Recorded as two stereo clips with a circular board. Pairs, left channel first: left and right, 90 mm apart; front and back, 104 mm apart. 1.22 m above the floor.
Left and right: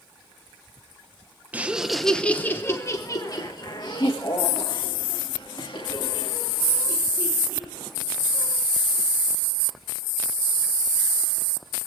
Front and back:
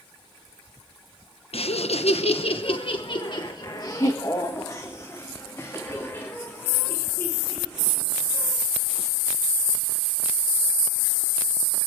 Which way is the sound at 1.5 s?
15° right.